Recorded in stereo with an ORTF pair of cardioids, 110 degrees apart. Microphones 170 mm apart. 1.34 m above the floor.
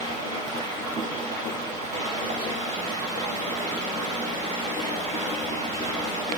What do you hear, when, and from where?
0.0 s running water: 50° right, 5 m